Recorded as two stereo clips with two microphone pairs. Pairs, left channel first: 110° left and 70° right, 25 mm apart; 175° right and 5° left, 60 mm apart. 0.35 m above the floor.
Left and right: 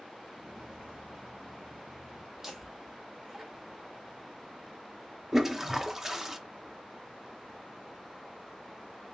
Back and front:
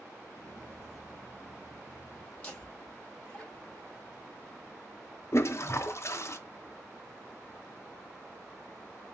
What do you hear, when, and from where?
0.3 s footsteps: 35° right, 1.3 m; by 2.3 s 70° right, 1.9 m
2.4 s laughter: 130° right, 1.6 m
5.3 s a toilet flushing: 150° right, 0.5 m